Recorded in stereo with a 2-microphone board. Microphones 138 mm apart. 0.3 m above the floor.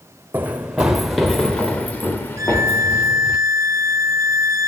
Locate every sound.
0.3 s running footsteps: 15° right (ahead or behind), 1.4 m; by 3.4 s 20° left (ahead or behind), 2.5 m
2.4 s a violin: 25° right (ahead or behind), 1.4 m